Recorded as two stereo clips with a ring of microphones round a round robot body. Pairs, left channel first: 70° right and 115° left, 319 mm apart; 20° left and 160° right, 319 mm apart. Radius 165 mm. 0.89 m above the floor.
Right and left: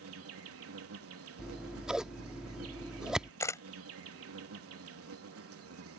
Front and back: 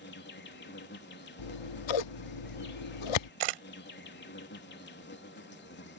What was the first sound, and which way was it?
An insect, 75° left.